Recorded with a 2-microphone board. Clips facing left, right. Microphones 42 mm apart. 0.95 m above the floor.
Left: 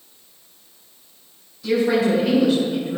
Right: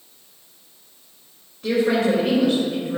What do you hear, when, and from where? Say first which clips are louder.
1.6 s a woman speaking: left 1 dB; 50° right (ahead or behind), 3.5 m